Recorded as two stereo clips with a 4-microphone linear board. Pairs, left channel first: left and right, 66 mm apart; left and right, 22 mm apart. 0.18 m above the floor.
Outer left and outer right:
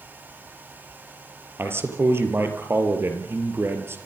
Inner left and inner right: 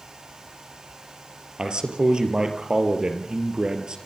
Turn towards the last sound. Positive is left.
turn(degrees=-40)  # may be behind; listen again after turning